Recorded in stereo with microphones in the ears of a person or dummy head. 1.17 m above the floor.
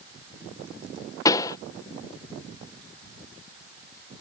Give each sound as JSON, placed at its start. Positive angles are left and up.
{"t": 1.2, "sound": "a pop", "side_deg": 20}